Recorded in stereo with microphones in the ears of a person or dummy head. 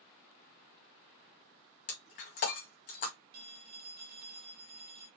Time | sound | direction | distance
1.9 | breaking glass | 45° left (ahead or behind) | 1.1 m
3.3 | a phone ringing | 45° right (ahead or behind) | 1.7 m